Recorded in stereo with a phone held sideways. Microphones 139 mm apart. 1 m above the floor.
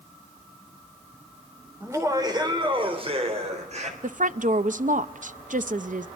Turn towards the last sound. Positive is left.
turn(degrees=-65)  # may be behind; listen again after turning